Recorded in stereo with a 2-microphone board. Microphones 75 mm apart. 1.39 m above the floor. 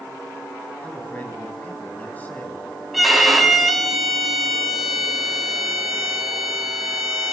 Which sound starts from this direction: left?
A man speaking, at 0.8 s.